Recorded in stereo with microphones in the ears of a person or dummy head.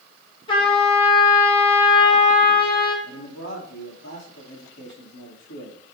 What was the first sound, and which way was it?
A trumpet, 30° left (ahead or behind).